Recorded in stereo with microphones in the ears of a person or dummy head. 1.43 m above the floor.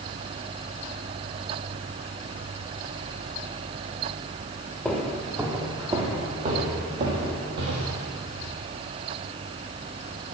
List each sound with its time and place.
4.8 s footsteps: 5° left (ahead or behind), 2 m; by 8.0 s 60° right (ahead or behind), 4 m